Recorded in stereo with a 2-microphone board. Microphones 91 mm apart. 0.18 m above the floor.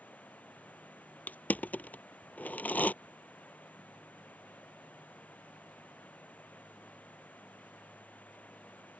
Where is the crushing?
20° left (ahead or behind).